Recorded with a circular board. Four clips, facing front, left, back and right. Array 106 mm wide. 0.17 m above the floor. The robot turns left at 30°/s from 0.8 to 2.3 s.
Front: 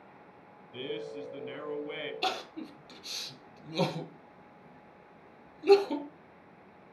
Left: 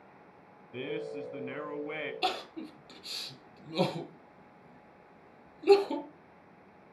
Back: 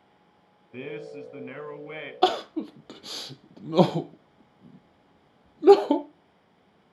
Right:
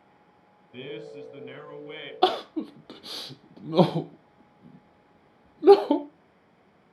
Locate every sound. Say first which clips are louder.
0.7 s a man speaking: left 2 dB, back 1 dB; 160° left, 1.1 m; by 2.1 s 120° left, 1.1 m
2.2 s crying: right 12 dB, back 13 dB; 135° right, 0.7 m